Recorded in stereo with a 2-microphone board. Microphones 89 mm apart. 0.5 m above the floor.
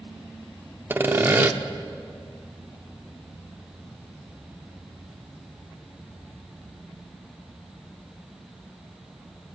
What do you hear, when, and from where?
0.9 s sawing: 25° right (ahead or behind), 0.6 m